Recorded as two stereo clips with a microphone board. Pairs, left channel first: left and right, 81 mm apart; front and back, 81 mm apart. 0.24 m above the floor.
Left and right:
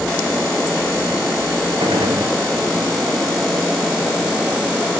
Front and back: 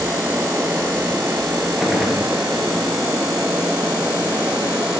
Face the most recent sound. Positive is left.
turn(degrees=-95)